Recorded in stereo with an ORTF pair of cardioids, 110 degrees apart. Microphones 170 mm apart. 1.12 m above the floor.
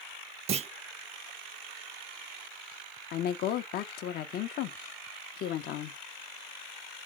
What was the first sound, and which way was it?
A clunk, 40° right.